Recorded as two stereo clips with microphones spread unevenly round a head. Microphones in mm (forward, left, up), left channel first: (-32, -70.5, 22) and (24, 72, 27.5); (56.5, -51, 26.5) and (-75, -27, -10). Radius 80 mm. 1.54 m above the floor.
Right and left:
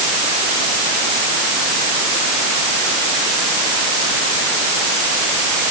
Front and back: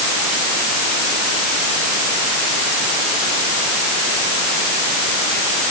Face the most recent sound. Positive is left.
No sound to turn to.